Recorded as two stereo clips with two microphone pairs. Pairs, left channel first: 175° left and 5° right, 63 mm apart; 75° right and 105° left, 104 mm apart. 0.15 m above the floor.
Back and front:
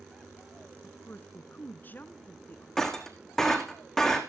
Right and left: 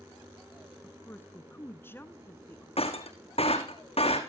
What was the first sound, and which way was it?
A woman speaking, 135° right.